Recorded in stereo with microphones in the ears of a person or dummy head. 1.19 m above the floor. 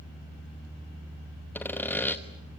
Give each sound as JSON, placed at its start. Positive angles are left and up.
{"t": 1.6, "sound": "sawing", "side_deg": 10, "distance_m": 1.1}